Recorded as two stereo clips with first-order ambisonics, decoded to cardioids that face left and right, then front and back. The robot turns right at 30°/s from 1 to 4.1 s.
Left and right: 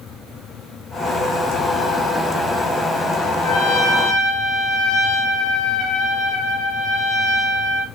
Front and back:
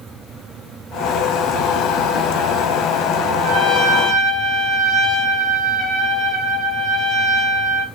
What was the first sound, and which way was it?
A trumpet, 35° left.